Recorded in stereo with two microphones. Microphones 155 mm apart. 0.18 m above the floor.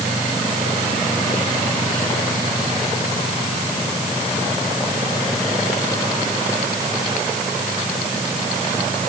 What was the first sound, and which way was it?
Only background noise.